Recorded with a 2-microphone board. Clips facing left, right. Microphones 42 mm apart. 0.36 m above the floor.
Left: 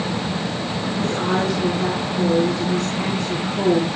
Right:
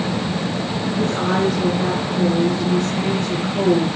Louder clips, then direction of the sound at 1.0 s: Right 2 dB; 25° right (ahead or behind).